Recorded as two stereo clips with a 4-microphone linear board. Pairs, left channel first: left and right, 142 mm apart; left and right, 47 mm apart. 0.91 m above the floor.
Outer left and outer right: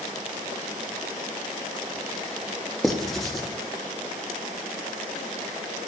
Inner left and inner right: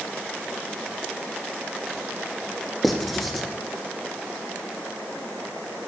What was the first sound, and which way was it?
Writing, centre (ahead or behind).